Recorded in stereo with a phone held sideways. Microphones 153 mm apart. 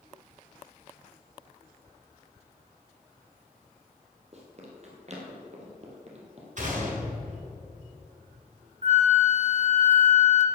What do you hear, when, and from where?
4.3 s running footsteps: 45° right (ahead or behind), 2.5 m
6.6 s a gunshot: 55° right (ahead or behind), 2.5 m
8.8 s a flute: 45° right (ahead or behind), 1.1 m